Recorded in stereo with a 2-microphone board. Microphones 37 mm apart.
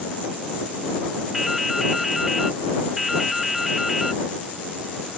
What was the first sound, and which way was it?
Dripping, 5° right (ahead or behind).